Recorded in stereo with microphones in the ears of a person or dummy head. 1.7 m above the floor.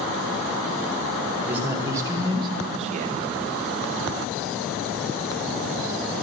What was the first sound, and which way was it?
A man speaking, 20° right (ahead or behind).